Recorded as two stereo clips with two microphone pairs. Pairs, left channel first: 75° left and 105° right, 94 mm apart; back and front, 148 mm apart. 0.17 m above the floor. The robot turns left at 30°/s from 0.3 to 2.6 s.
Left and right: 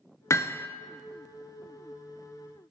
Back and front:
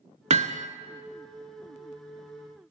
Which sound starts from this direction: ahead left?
Hammering, at 0.3 s.